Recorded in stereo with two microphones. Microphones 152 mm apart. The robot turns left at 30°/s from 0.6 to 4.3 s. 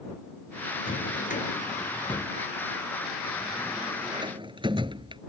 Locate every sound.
0.9 s a drawer: 70° left (ahead or behind); by 5.2 s 30° right (ahead or behind)